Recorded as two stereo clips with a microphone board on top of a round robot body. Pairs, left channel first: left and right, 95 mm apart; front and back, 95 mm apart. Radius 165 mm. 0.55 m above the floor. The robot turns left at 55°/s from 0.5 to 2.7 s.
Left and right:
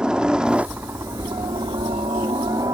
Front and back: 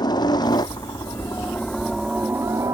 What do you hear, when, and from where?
0.0 s a helicopter: 10° right; by 2.7 s 135° right